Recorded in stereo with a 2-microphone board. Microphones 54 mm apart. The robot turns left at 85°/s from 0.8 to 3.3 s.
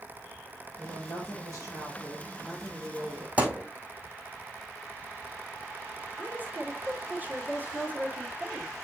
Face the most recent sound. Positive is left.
turn(degrees=-30)  # may be behind; listen again after turning